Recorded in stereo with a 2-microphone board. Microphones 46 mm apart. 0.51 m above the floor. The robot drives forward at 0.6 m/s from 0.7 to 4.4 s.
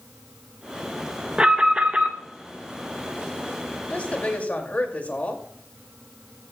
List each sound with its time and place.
1.4 s an alarm: 25° right (ahead or behind), 1.4 m; by 2.1 s 30° right (ahead or behind), 1.2 m
3.9 s a woman speaking: 30° left (ahead or behind), 2.5 m; by 5.4 s 35° left (ahead or behind), 2 m